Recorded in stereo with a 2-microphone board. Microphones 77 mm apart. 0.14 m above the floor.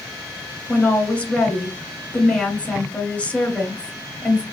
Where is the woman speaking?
15° left (ahead or behind), 1.3 m.